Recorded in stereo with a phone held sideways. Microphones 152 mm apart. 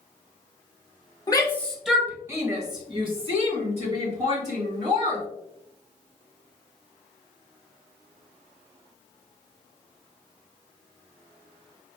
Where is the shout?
25° left (ahead or behind), 0.9 m; by 5.2 s 50° right (ahead or behind), 3 m.